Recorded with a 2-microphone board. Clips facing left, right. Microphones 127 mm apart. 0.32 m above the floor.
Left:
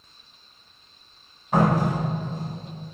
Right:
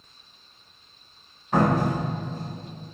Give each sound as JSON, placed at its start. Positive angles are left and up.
{"t": 1.5, "sound": "a door slam", "side_deg": 15, "distance_m": 1.7}